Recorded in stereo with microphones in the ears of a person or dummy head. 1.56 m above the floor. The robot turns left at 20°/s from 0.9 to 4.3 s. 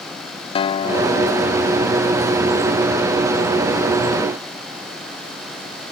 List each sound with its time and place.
0.6 s a guitar: 30° left (ahead or behind); by 1.9 s 50° left (ahead or behind)